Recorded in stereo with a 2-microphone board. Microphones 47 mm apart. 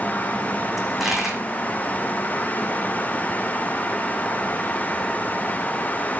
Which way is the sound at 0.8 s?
5° right (ahead or behind).